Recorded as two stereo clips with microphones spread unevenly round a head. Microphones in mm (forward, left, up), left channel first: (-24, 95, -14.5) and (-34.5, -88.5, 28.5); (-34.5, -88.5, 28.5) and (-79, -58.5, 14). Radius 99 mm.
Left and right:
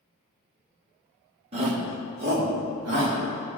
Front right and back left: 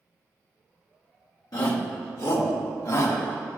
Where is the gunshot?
I don't hear a gunshot.